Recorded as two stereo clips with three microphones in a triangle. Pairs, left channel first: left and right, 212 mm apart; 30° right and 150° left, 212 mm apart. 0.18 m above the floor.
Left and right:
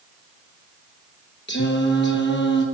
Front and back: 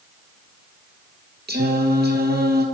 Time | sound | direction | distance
1.5 | singing | 115° left | 1.0 m